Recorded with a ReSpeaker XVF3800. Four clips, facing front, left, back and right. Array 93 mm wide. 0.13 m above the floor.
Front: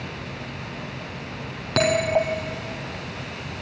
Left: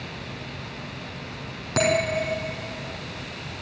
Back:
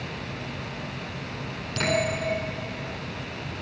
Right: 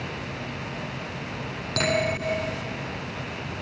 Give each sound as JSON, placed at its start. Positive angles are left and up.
{"t": 1.8, "sound": "a bell", "azimuth_deg": 15, "distance_m": 4.5}